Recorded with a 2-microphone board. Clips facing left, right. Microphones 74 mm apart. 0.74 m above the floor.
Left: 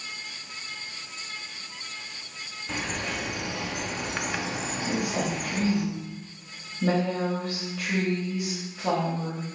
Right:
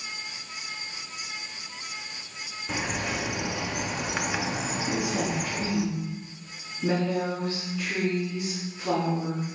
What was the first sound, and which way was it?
A bird, 5° right (ahead or behind).